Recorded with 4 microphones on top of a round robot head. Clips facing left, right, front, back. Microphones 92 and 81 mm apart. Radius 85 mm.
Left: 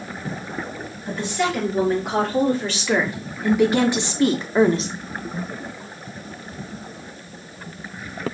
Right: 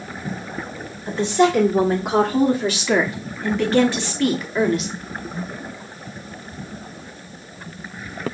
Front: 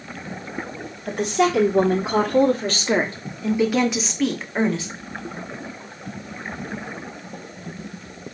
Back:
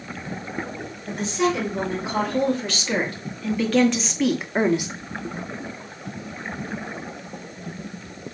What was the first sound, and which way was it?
A woman speaking, 25° right.